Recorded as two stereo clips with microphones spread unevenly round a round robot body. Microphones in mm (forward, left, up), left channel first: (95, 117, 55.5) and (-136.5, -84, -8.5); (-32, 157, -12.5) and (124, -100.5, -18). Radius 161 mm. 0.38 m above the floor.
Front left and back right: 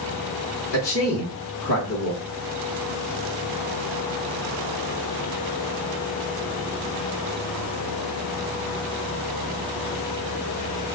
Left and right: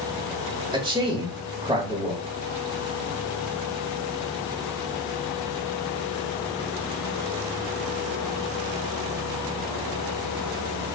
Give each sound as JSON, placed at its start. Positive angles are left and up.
{"t": 0.7, "sound": "a man speaking", "azimuth_deg": 10, "distance_m": 1.2}